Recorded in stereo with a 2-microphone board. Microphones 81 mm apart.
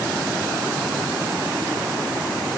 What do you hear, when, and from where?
Only background noise.